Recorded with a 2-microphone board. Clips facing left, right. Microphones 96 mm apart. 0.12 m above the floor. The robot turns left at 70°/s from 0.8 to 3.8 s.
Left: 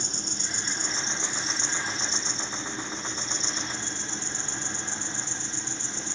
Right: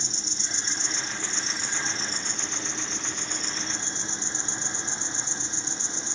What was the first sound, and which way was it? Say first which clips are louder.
An insect: left 2 dB; 50° left.